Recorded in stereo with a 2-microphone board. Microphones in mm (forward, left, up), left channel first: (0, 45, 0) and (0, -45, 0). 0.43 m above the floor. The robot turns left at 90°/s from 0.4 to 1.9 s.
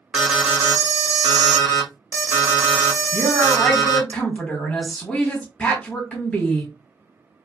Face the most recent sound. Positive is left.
turn(degrees=15)  # may be behind; listen again after turning